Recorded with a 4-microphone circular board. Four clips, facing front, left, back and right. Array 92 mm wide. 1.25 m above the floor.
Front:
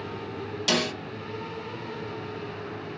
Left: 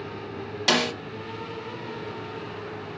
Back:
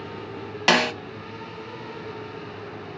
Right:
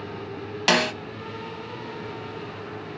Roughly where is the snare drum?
Behind.